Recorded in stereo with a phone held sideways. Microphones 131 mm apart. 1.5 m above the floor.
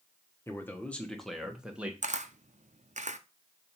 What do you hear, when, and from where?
0.5 s a man speaking: 20° left (ahead or behind), 1.2 m; by 1.9 s 10° right (ahead or behind), 1.4 m
2.0 s a camera shutter: 75° right (ahead or behind), 0.6 m